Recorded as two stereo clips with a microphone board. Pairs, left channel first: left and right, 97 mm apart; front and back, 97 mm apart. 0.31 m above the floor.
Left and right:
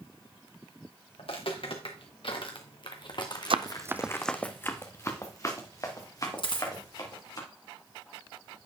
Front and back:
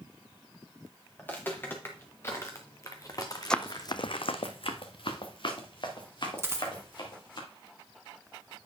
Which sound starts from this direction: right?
Running footsteps, at 3.5 s.